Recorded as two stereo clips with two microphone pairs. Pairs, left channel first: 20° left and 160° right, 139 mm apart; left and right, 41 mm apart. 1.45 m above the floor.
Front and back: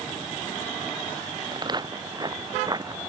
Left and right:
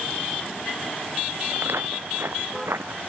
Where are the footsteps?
105° right; by 3.0 s 100° right.